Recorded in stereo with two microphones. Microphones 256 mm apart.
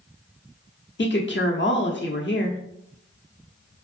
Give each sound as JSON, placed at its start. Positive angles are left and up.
{"t": 1.0, "sound": "a woman speaking", "side_deg": 45, "distance_m": 0.9}